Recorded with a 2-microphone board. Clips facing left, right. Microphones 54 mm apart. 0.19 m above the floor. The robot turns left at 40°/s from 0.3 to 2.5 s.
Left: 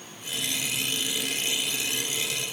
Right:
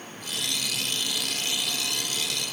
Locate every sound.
Only background noise.